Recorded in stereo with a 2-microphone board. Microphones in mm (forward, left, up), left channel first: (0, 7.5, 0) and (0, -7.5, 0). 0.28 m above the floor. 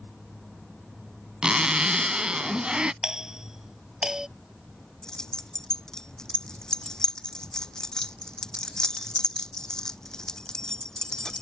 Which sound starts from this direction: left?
Keys jangling, at 5.0 s.